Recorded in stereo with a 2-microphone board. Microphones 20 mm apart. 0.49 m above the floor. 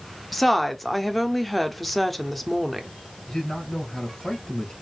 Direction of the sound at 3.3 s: 35° left (ahead or behind).